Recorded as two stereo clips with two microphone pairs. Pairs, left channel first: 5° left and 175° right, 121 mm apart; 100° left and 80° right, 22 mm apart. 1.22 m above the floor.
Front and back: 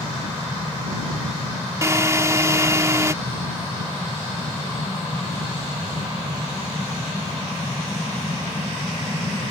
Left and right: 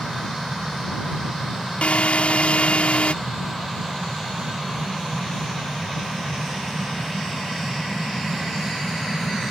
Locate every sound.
1.8 s a drill: 120° left